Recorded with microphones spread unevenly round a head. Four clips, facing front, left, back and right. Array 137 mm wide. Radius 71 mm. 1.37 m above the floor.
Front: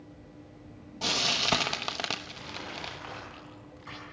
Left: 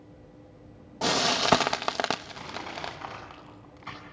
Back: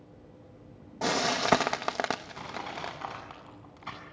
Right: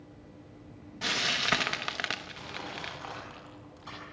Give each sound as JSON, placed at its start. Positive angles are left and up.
{"t": 1.0, "sound": "frying", "azimuth_deg": 125, "distance_m": 1.2}
{"t": 2.4, "sound": "crushing", "azimuth_deg": 150, "distance_m": 7.5}